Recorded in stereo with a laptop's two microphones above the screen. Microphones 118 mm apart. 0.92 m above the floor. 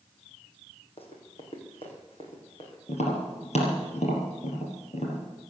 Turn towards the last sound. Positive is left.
turn(degrees=65)  # may be behind; listen again after turning